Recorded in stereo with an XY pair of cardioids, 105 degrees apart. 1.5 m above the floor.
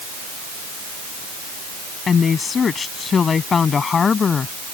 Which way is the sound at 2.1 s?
40° left.